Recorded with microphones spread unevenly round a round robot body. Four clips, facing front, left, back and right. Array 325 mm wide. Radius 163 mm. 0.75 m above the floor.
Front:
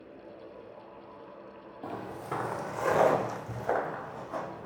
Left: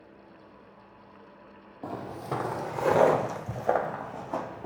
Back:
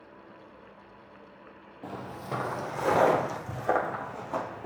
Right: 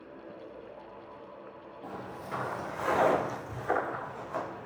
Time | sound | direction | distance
1.8 | footsteps | 90° left | 0.9 m